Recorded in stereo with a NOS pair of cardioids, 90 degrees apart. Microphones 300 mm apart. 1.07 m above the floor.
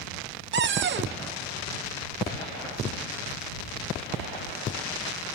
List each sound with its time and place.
0.5 s a cupboard door: 40° right